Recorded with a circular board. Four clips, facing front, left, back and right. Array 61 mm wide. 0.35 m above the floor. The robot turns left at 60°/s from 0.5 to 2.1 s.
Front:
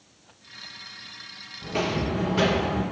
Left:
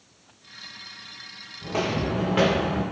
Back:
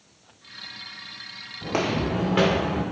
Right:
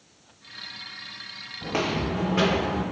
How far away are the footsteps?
About 0.6 m.